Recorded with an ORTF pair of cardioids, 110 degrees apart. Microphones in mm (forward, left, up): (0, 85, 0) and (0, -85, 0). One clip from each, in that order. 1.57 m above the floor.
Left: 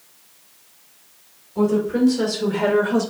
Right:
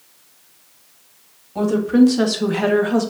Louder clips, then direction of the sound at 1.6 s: Right 3 dB; 60° right.